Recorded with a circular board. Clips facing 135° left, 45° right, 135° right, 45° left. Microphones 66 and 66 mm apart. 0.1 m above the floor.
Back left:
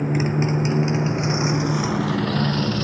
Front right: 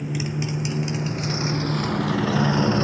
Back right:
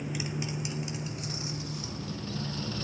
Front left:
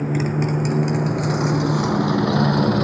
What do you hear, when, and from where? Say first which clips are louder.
0.0 s a motorcycle: back left 6 dB, front left 13 dB; 85° left; by 2.8 s 20° left